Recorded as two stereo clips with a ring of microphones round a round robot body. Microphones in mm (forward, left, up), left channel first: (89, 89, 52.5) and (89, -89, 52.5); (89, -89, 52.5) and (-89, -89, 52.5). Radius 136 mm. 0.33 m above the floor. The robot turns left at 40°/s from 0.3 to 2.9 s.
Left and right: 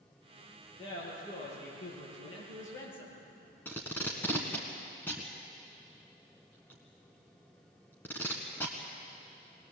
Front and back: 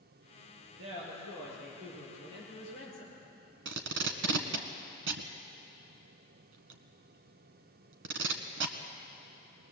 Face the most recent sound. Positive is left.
turn(degrees=170)